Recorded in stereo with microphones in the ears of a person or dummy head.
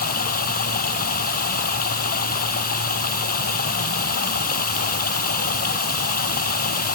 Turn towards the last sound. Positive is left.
turn(degrees=45)  # may be behind; listen again after turning